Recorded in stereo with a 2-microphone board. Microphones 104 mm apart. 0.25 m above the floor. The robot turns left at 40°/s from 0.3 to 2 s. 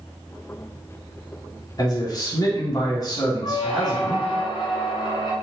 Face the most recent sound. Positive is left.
turn(degrees=55)  # may be behind; listen again after turning